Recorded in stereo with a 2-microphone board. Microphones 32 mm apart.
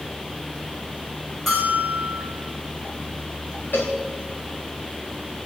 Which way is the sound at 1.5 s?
15° left (ahead or behind).